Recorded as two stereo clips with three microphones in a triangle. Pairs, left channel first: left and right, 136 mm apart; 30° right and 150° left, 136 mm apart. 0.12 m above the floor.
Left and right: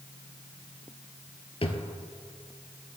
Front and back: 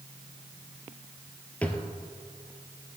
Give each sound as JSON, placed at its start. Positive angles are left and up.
{"t": 1.6, "sound": "a drawer", "azimuth_deg": 45, "distance_m": 0.8}